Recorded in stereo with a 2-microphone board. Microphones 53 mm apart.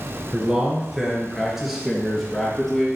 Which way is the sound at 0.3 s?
20° right (ahead or behind).